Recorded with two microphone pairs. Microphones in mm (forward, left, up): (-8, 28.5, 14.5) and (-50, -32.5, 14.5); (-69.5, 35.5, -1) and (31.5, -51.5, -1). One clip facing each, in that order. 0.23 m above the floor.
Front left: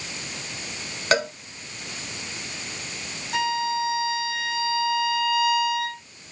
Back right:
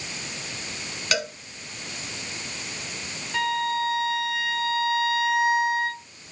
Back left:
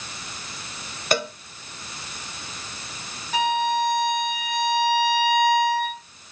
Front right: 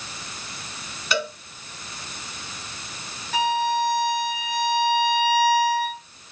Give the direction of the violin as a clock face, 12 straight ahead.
10 o'clock.